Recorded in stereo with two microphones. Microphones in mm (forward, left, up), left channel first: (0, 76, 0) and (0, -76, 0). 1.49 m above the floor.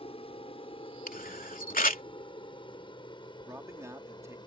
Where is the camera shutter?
70° left (ahead or behind).